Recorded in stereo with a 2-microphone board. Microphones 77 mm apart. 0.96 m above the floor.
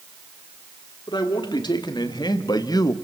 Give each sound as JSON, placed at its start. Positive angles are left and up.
{"t": 1.1, "sound": "a man speaking", "side_deg": 80, "distance_m": 3.0}